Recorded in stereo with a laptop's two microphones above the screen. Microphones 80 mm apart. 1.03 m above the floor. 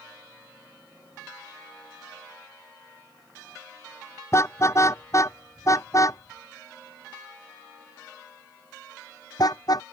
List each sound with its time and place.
4.3 s a car horn: 35° left (ahead or behind); by 9.8 s 55° left (ahead or behind)